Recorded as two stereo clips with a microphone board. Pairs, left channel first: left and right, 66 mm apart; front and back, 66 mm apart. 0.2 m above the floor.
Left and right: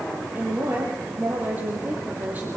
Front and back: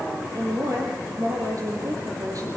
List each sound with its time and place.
0.3 s a woman speaking: 155° right, 6 m